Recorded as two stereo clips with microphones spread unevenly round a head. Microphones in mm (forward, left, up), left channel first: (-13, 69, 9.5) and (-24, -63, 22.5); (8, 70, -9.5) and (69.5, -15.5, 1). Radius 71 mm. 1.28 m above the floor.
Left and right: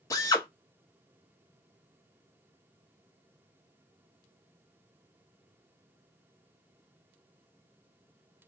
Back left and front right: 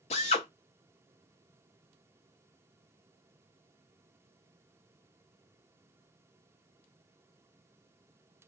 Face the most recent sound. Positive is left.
turn(degrees=155)